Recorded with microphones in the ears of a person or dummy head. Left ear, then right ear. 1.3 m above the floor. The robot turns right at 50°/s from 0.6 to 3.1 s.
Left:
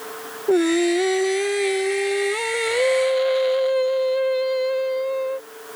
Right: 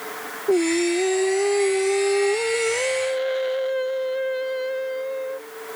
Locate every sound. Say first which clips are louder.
0.5 s singing: left 2 dB; 35° left; by 5.5 s 160° left